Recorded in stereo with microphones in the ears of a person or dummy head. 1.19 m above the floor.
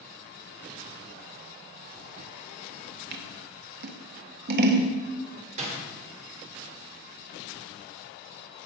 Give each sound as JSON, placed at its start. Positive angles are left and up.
{"t": 3.1, "sound": "scissors", "side_deg": -55, "distance_m": 1.2}
{"t": 5.6, "sound": "a door slam", "side_deg": -35, "distance_m": 2.5}